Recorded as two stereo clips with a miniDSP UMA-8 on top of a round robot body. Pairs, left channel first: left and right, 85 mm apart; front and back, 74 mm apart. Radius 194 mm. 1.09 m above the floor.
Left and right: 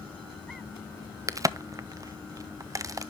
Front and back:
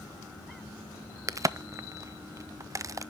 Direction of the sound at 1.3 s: 135° right.